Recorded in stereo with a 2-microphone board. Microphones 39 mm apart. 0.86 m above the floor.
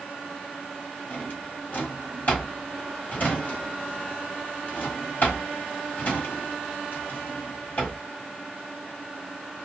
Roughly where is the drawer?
Left.